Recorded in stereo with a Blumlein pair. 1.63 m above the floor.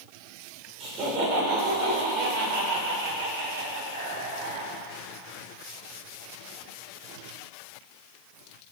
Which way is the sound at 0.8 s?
30° right.